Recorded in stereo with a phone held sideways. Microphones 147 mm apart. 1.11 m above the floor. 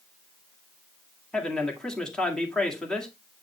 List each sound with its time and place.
1.3 s a man speaking: 5° left (ahead or behind), 2 m